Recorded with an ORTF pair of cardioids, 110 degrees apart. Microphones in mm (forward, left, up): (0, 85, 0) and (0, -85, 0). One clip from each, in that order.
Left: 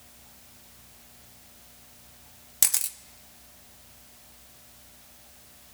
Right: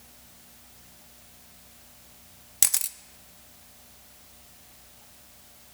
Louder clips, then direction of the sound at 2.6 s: Even; 5° right.